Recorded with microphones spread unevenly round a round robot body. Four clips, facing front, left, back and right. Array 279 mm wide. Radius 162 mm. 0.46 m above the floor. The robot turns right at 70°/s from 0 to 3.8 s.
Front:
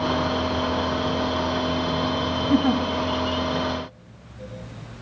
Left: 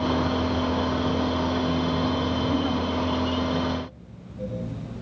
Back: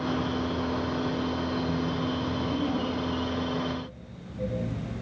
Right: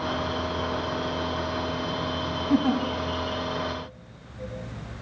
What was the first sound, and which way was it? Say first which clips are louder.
A giggle: right 7 dB, front 11 dB; 40° right.